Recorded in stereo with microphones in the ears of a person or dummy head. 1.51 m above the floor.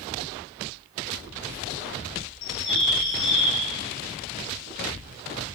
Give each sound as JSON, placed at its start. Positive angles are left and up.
{"t": 2.4, "sound": "a bird", "side_deg": 65, "distance_m": 1.1}